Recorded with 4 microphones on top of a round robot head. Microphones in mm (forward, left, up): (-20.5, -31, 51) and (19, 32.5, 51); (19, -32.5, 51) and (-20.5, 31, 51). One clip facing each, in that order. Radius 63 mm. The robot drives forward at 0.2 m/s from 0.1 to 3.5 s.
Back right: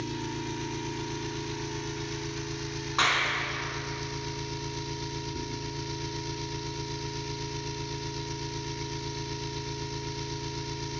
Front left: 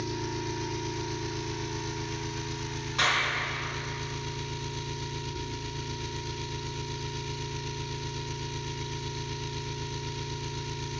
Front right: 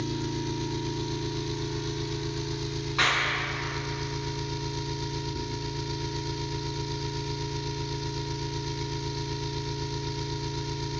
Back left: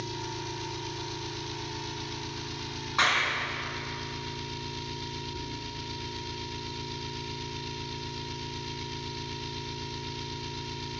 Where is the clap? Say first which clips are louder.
Back right 1 dB, even; 170° right, 4.5 m.